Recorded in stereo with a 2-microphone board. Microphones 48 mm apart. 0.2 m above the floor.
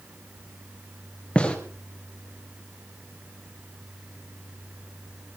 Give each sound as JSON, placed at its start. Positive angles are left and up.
{"t": 1.4, "sound": "a gunshot", "side_deg": 20, "distance_m": 3.0}